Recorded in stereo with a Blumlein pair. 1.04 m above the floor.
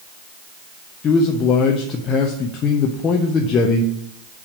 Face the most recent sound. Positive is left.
turn(degrees=25)